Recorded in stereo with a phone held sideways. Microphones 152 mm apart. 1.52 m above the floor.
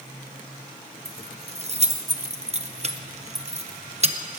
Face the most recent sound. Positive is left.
turn(degrees=-45)  # may be behind; listen again after turning